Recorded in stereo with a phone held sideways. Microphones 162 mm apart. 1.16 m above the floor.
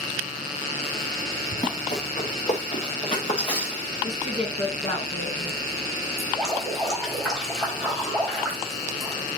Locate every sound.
1.5 s running footsteps: 50° left (ahead or behind), 5 m; by 3.9 s 30° left (ahead or behind), 5 m
4.0 s a woman speaking: 45° left (ahead or behind), 5.5 m
6.2 s dripping: centre (ahead or behind), 4 m